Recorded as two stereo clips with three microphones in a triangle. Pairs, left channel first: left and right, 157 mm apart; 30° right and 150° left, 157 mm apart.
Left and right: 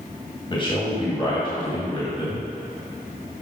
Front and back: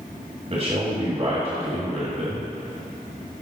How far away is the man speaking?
About 1.9 m.